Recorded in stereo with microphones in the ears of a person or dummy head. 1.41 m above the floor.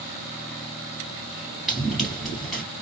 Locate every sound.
1.7 s running footsteps: 5° left (ahead or behind), 1.5 m